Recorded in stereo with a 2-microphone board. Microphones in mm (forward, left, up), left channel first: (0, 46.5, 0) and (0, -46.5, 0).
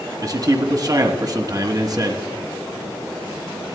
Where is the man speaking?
40° right (ahead or behind), 1.3 m.